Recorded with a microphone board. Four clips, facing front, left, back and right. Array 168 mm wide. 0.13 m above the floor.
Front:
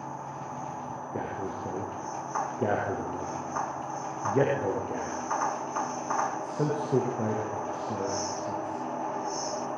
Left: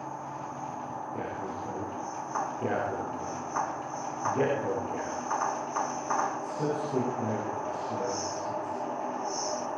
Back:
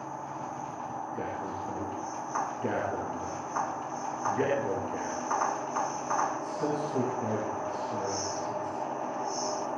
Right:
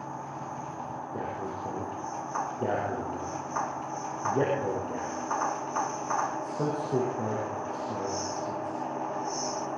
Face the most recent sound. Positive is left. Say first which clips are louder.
# right 2 dB, front 4 dB
turn(degrees=-20)